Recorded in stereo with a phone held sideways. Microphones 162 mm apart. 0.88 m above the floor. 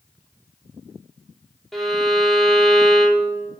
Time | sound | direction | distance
1.7 | a violin | 5° left (ahead or behind) | 0.6 m